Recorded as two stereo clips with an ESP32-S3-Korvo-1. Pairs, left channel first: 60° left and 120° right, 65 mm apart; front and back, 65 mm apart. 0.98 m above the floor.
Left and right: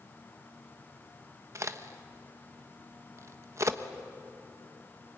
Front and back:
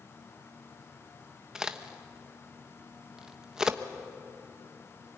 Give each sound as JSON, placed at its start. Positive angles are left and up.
{"t": 1.6, "sound": "a crack", "azimuth_deg": -100, "distance_m": 1.1}